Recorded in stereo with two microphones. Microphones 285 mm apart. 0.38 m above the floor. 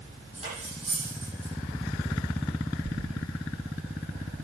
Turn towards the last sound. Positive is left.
turn(degrees=-80)